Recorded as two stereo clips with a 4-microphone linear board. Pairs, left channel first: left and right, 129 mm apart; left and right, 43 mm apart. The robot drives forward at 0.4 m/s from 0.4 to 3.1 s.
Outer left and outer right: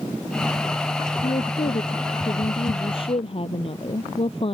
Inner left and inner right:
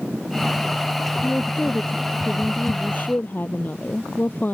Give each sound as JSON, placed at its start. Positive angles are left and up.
{"t": 1.2, "sound": "a woman speaking", "side_deg": 40}